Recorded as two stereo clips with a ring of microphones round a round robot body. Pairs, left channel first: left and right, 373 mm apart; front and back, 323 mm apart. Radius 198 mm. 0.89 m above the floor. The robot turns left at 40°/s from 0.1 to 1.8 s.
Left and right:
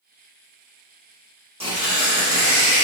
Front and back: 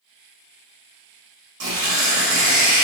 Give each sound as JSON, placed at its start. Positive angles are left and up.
{"t": 1.6, "sound": "tearing paper", "azimuth_deg": -165, "distance_m": 1.5}